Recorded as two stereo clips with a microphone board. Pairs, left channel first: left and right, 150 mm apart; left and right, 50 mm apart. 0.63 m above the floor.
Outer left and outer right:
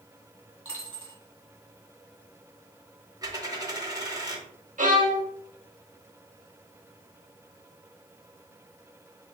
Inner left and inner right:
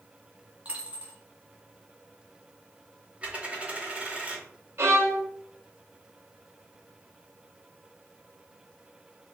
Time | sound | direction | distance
0.7 | a dropped coin | 40° right (ahead or behind) | 1.9 m
3.2 | a dropped coin | 25° right (ahead or behind) | 1.1 m
4.8 | a violin | 60° right (ahead or behind) | 0.7 m